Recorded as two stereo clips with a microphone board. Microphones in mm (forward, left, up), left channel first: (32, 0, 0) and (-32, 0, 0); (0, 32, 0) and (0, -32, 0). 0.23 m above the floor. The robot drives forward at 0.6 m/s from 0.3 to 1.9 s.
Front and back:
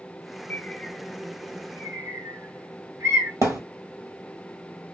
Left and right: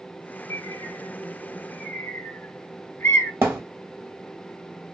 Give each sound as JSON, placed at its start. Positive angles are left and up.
{"t": 0.5, "sound": "a bird", "azimuth_deg": 60, "distance_m": 0.6}
{"t": 3.4, "sound": "a thud", "azimuth_deg": -145, "distance_m": 1.4}